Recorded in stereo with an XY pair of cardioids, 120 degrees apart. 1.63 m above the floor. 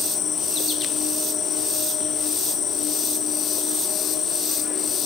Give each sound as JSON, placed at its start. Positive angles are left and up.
{"t": 0.0, "sound": "an insect", "azimuth_deg": 50, "distance_m": 0.8}